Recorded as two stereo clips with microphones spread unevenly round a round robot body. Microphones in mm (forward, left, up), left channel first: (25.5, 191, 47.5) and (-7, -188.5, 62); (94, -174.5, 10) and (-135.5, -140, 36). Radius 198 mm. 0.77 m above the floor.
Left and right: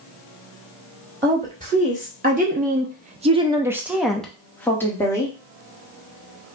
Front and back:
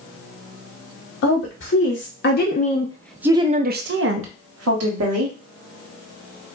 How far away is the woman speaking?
About 1.2 m.